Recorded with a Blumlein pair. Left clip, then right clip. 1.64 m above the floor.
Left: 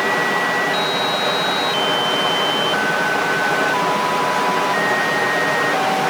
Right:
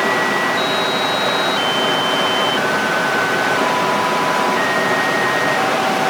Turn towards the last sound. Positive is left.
turn(degrees=-10)